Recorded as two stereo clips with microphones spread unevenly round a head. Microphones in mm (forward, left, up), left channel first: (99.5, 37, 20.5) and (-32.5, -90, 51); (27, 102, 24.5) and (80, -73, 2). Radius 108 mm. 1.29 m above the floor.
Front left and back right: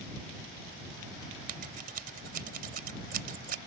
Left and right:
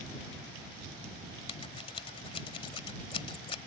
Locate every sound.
1.5 s scissors: 175° left